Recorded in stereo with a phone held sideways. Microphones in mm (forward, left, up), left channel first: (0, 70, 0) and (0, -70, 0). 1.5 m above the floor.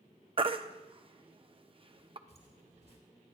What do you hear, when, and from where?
0.4 s a baby crying: 40° right (ahead or behind), 0.6 m
2.3 s footsteps: 50° right (ahead or behind), 3 m